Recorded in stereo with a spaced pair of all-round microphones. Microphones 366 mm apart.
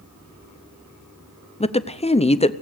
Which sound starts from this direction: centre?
A woman speaking, at 1.6 s.